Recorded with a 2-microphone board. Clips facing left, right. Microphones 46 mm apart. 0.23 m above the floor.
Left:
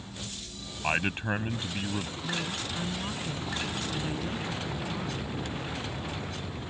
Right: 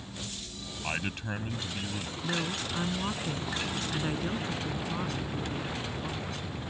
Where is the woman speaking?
20° right (ahead or behind).